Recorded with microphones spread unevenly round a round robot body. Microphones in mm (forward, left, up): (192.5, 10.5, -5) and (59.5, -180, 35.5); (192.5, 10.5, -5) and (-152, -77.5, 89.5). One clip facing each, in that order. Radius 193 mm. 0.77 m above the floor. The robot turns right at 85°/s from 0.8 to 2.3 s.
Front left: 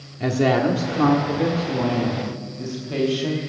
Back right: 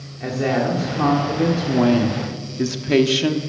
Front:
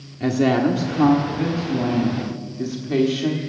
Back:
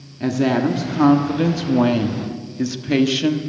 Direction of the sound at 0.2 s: 110° left.